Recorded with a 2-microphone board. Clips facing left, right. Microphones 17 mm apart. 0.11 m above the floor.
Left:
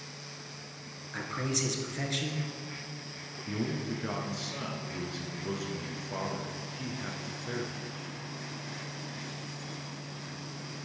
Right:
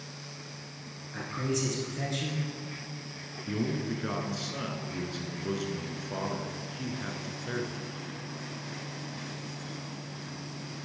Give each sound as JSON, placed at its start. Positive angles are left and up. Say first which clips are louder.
{"t": 1.1, "sound": "a man speaking", "louder": "even", "side_deg": 25, "distance_m": 1.5}
{"t": 3.5, "sound": "a man speaking", "louder": "right 2 dB", "side_deg": -10, "distance_m": 1.1}